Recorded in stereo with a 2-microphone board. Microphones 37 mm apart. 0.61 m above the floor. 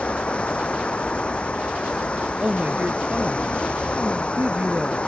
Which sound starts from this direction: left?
Running water, at 0.0 s.